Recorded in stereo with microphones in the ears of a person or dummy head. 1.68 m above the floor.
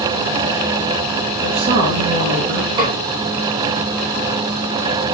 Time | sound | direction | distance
1.4 | a woman speaking | 45° right (ahead or behind) | 2.5 m
2.8 | a snare drum | 30° right (ahead or behind) | 4.5 m